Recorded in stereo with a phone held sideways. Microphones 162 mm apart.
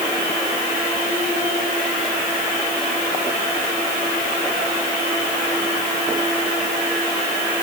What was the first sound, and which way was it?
Only background noise.